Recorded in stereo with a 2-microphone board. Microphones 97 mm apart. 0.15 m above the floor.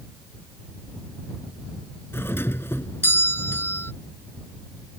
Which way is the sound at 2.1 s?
25° left (ahead or behind).